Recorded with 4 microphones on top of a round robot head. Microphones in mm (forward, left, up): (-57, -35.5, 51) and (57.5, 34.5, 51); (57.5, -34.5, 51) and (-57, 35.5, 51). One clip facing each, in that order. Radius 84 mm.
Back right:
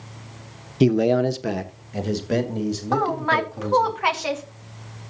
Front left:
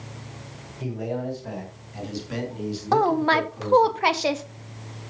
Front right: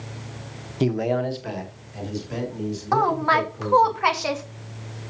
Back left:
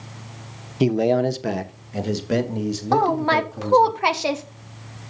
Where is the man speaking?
135° right, 0.9 m; by 3.9 s 160° left, 3.5 m.